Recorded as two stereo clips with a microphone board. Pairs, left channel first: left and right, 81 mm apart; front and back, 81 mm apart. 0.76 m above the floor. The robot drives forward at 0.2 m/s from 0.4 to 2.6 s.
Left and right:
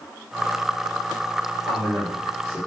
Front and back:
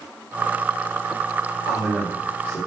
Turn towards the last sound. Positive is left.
turn(degrees=-115)